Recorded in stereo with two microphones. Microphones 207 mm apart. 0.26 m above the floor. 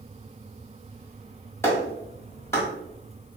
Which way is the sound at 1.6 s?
10° left (ahead or behind).